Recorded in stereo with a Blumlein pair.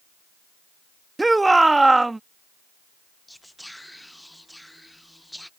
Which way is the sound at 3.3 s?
Straight ahead.